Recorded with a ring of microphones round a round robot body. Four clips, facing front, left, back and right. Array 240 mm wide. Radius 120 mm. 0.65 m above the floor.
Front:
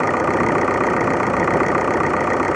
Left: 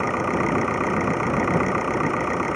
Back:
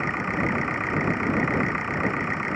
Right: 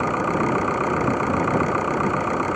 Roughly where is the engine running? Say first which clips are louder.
Right 1 dB, front 10 dB; ahead.